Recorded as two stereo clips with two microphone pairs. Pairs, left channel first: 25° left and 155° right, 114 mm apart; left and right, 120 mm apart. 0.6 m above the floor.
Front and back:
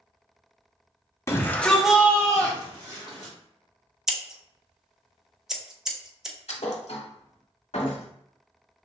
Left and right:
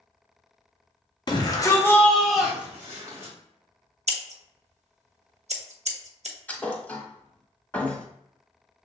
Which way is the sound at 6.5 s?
10° left.